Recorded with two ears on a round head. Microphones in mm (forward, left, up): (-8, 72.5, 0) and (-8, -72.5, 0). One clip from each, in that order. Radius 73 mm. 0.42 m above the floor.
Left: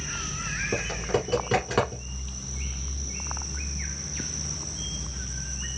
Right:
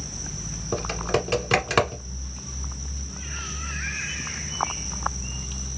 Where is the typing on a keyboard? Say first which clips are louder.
Right 5 dB; 50° right (ahead or behind), 1.0 m.